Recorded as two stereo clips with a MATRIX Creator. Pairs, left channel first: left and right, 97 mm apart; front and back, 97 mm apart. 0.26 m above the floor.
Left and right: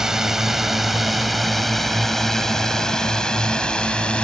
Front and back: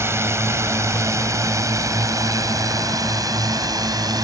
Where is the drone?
170° right; by 4.2 s 165° left.